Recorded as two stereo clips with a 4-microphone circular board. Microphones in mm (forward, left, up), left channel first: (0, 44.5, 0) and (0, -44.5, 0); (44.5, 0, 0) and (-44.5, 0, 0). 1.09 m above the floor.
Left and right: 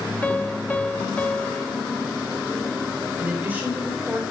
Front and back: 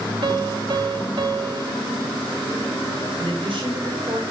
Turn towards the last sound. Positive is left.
turn(degrees=-160)